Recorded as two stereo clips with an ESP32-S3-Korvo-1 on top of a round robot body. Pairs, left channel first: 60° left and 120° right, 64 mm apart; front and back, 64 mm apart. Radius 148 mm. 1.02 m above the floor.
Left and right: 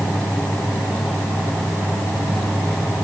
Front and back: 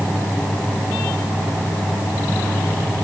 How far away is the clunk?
I don't hear a clunk.